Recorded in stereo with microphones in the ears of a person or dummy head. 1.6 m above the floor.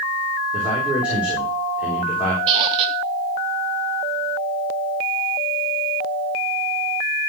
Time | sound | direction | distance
0.5 | a man speaking | 5° right (ahead or behind) | 3.5 m
2.5 | a squeak | 20° right (ahead or behind) | 0.5 m